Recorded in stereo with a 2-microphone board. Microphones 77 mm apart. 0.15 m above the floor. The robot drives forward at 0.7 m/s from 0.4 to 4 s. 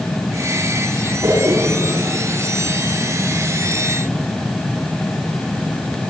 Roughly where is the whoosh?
Right.